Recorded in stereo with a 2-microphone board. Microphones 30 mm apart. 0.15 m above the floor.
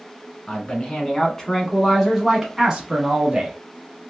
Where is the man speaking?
30° left (ahead or behind), 1.4 m; by 3.6 s 35° right (ahead or behind), 1.2 m.